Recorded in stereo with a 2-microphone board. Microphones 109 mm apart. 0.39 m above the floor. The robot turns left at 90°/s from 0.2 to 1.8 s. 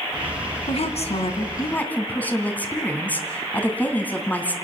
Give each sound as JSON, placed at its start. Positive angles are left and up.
{"t": 0.7, "sound": "a woman speaking", "azimuth_deg": 115, "distance_m": 3.0}